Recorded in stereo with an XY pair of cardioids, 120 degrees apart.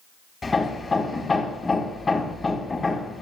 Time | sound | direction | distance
0.4 | hammering | 25° left | 2.5 m